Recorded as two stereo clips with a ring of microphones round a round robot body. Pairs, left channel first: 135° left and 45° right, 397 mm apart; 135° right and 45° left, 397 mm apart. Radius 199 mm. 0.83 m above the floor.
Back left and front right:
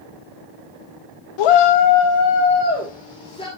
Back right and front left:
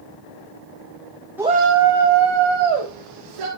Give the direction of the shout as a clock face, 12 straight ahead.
8 o'clock.